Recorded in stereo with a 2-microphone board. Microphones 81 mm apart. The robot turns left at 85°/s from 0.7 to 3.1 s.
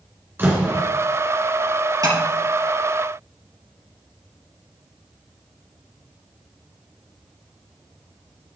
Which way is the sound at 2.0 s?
45° right (ahead or behind).